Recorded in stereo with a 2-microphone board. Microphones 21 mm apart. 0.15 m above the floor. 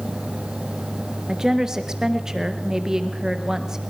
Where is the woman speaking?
30° right (ahead or behind), 2 m.